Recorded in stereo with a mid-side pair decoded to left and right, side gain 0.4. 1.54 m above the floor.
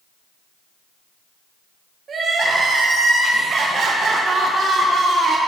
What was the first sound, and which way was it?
Crying, 55° right.